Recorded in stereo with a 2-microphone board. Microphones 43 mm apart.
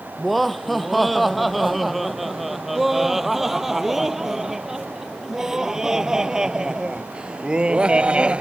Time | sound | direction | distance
0.2 | laughter | centre (ahead or behind) | ?